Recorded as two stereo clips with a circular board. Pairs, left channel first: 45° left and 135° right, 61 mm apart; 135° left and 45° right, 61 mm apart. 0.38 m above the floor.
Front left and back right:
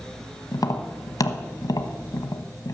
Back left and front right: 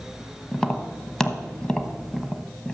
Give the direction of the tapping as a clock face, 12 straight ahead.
10 o'clock.